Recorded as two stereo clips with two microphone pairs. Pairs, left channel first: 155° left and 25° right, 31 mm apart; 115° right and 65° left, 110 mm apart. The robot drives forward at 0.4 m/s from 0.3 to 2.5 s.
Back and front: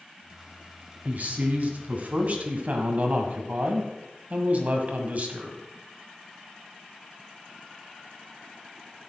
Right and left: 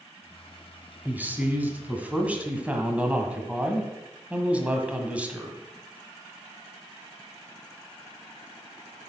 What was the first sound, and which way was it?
A man speaking, 5° right.